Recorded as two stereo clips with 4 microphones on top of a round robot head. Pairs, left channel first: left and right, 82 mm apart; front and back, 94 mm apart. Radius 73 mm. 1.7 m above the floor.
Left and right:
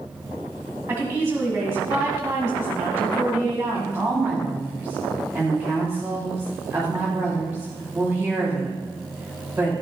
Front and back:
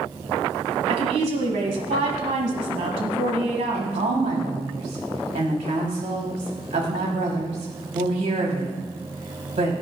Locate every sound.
0.9 s a woman speaking: 160° right, 2 m
3.7 s a woman speaking: 160° right, 3 m